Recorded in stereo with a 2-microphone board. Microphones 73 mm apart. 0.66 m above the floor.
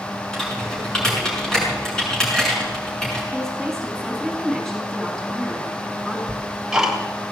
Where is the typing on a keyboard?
10° left (ahead or behind), 6.5 m.